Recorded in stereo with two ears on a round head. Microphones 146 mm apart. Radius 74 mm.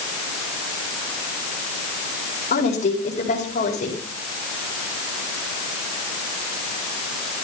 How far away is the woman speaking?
About 5 m.